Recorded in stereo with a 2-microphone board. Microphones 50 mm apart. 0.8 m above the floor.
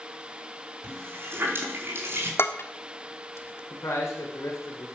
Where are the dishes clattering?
55° left (ahead or behind), 1.3 m.